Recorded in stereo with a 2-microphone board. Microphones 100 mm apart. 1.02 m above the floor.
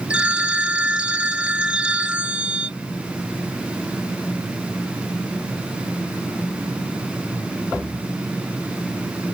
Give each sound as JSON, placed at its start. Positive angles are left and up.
{"t": 0.1, "sound": "a phone ringing", "side_deg": -10}